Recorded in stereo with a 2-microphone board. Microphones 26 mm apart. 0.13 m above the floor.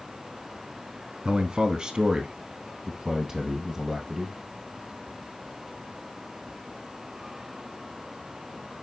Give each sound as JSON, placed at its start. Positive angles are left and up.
{"t": 1.2, "sound": "a man speaking", "side_deg": -20, "distance_m": 1.3}